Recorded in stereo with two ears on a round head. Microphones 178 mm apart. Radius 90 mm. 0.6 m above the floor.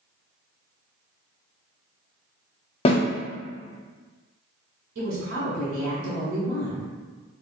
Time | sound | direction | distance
2.9 | a snare drum | 30° left (ahead or behind) | 0.7 m
5.0 | a woman speaking | 60° right (ahead or behind) | 1.5 m